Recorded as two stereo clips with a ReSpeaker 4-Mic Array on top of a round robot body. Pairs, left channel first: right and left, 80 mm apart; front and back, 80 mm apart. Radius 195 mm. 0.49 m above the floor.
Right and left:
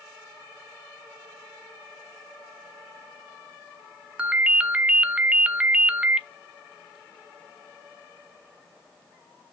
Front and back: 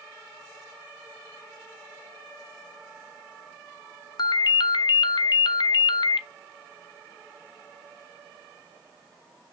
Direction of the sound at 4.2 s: 15° left.